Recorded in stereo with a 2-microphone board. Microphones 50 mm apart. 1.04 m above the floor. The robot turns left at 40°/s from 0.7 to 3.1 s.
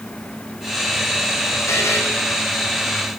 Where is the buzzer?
80° left, 6.5 m; by 2.0 s 65° left (ahead or behind), 6.5 m.